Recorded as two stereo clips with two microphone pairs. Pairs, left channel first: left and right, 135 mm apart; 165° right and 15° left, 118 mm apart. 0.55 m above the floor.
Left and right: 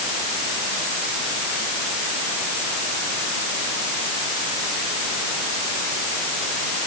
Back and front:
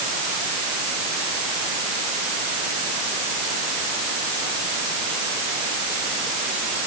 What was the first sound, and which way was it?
Only background noise.